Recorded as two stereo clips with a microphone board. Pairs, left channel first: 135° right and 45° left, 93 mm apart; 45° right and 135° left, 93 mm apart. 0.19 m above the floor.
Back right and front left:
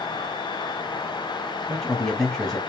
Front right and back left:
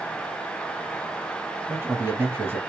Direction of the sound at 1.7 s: 145° left.